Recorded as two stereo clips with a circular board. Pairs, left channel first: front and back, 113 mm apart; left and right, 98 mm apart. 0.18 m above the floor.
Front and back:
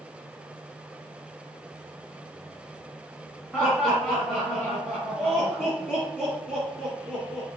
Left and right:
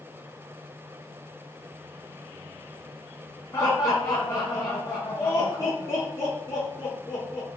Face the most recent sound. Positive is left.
turn(degrees=80)